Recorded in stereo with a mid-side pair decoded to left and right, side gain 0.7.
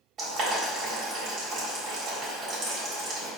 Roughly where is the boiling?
Ahead right.